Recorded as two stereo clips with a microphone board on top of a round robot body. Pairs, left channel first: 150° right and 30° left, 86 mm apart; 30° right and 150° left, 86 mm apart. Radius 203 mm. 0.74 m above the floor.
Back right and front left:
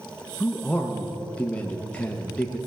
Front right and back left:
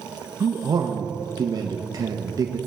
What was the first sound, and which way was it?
A man speaking, 140° left.